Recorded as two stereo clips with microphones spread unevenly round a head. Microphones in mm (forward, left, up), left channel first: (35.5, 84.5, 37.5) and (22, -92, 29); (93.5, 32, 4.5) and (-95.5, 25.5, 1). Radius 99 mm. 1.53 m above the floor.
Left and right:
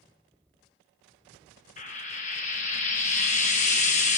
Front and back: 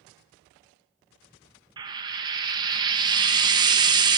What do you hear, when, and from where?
1.8 s frying: 120° left, 0.8 m